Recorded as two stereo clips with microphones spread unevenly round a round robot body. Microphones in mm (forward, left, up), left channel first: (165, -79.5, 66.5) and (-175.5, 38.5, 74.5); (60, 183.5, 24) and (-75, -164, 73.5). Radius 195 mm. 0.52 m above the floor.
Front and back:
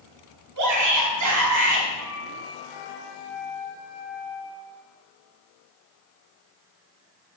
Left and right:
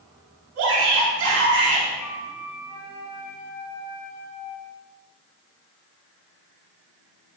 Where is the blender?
No blender in this recording.